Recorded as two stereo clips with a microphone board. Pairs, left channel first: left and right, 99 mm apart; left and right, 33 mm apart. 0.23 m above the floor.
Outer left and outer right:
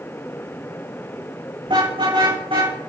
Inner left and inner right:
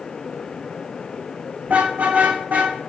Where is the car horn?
55° right (ahead or behind), 10 m; by 2.8 s 60° right (ahead or behind), 8.5 m.